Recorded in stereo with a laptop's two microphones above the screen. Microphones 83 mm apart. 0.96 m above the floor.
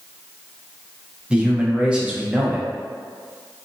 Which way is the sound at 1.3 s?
15° right (ahead or behind).